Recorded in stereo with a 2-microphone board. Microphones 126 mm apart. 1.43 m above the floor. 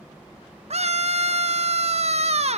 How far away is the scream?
About 0.9 m.